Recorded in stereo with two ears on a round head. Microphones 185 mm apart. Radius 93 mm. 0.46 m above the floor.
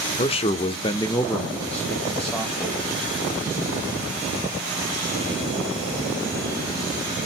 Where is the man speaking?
30° left (ahead or behind), 0.9 m; by 2.8 s centre (ahead or behind), 2.0 m.